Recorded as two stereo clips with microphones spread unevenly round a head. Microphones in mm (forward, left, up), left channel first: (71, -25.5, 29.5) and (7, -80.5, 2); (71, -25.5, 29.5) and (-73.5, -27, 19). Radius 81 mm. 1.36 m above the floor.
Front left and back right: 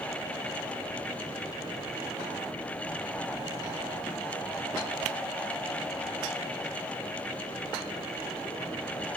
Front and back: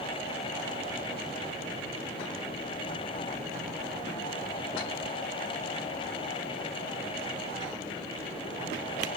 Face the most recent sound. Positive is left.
No sound to turn to.